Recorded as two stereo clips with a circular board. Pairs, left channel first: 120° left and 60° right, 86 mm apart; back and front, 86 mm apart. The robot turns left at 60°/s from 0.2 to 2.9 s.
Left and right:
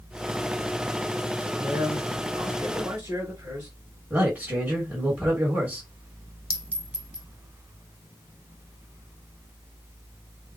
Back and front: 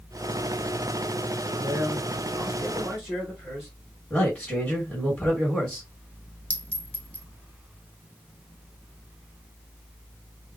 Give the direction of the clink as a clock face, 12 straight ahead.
4 o'clock.